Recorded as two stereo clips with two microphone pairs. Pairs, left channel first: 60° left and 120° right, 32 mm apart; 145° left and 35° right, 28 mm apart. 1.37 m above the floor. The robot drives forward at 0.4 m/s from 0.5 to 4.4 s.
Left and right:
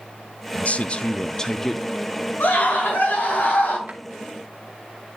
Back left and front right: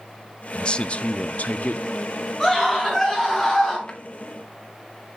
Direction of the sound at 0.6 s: 90° left.